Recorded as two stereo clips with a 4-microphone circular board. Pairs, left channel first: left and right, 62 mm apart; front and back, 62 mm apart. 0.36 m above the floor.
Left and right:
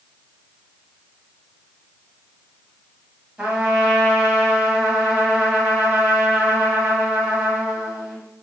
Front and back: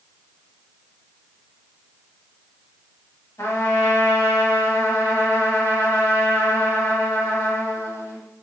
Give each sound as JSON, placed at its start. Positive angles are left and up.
{"t": 3.4, "sound": "a trumpet", "azimuth_deg": -15, "distance_m": 1.1}